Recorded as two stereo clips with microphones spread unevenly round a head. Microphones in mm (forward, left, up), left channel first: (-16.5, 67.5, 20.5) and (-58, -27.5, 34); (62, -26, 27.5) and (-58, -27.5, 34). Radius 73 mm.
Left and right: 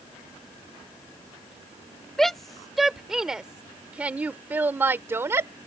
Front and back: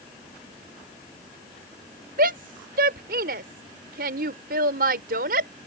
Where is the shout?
155° left; by 5.5 s 175° right.